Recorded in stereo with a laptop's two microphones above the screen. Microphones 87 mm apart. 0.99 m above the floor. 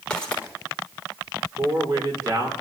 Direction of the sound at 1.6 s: 45° right (ahead or behind).